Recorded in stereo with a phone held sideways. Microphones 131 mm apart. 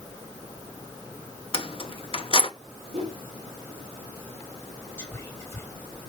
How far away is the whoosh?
About 2.5 m.